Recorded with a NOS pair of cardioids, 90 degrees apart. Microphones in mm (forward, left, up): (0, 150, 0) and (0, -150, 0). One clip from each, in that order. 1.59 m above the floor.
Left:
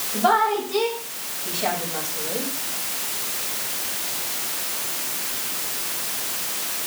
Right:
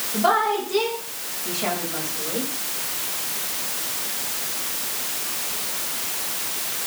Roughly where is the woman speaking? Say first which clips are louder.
Left 1 dB; ahead.